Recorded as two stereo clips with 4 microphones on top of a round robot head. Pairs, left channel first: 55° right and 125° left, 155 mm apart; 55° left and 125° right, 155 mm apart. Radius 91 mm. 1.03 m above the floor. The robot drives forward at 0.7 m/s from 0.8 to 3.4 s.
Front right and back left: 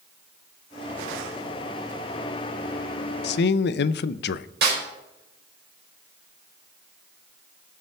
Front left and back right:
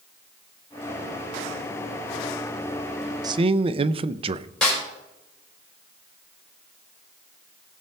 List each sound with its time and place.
3.2 s a man speaking: 55° right, 0.5 m; by 4.5 s 65° right, 0.5 m
4.6 s a snare drum: 140° left, 4 m